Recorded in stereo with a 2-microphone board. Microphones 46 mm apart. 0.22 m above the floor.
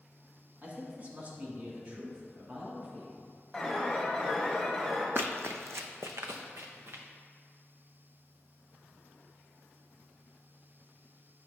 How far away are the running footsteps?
About 0.6 m.